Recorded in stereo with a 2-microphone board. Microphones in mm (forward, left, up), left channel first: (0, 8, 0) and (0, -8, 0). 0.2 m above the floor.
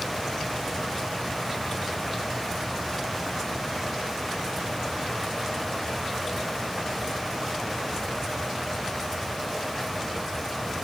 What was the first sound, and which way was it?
Only background noise.